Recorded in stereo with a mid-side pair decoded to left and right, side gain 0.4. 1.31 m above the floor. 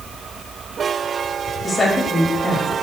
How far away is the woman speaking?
About 6.5 m.